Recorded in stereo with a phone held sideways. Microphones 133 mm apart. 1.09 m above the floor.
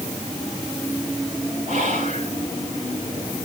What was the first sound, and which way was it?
Whispering, 80° right.